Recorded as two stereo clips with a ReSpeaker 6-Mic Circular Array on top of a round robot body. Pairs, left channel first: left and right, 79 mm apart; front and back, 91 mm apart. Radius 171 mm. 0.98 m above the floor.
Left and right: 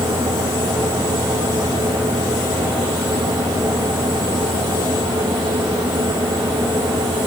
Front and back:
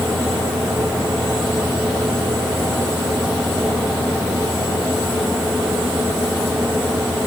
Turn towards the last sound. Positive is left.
No sound to turn to.